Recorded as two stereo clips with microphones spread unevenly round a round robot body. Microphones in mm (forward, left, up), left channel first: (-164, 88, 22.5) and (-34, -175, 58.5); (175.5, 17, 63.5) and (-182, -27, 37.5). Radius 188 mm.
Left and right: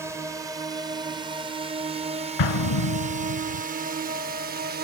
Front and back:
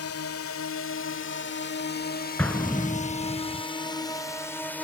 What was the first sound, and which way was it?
A drone, 20° left.